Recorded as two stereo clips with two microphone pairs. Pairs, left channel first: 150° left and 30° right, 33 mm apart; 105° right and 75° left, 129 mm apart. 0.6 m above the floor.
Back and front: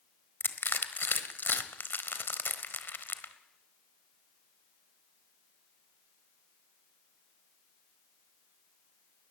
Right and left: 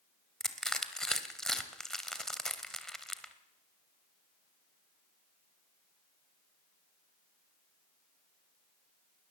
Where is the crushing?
165° left, 1.3 m.